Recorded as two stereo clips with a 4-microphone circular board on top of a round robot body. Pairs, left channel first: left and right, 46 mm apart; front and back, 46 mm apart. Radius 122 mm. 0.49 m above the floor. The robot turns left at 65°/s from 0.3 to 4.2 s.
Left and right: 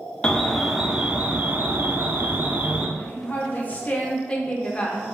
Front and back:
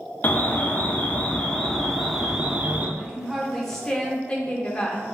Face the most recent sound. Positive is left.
turn(degrees=40)